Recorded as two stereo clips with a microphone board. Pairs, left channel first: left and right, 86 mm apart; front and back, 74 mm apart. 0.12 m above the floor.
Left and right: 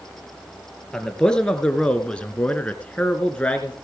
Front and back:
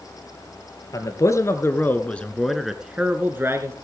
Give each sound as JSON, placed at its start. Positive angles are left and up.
{"t": 0.9, "sound": "a man speaking", "azimuth_deg": 10, "distance_m": 2.0}